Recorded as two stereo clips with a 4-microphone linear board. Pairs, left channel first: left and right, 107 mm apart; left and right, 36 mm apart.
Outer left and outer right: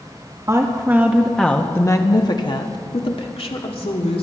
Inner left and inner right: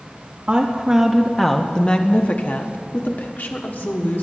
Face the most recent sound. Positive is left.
turn(degrees=70)  # may be behind; listen again after turning